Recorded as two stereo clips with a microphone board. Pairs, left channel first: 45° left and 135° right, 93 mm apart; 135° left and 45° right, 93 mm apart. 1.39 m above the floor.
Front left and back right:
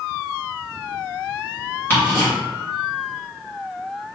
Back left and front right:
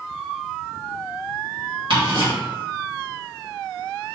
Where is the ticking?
20° right, 1.6 m.